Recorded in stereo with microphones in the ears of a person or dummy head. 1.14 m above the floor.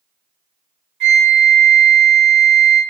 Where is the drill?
No drill in this recording.